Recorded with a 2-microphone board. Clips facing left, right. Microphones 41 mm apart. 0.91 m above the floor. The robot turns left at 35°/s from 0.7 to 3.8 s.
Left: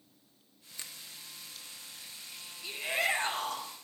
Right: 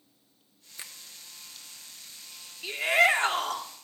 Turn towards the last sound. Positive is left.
turn(degrees=-100)